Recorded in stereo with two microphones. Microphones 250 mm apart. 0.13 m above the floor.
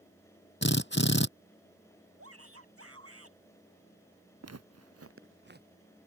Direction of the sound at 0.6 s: 45° left (ahead or behind).